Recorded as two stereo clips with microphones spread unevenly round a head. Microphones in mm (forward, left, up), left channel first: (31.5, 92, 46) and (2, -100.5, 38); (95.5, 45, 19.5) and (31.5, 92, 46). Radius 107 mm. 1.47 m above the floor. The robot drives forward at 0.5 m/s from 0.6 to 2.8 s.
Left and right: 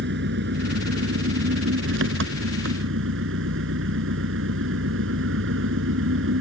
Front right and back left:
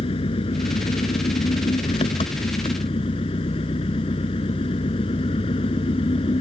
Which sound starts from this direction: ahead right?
An engine running, at 0.0 s.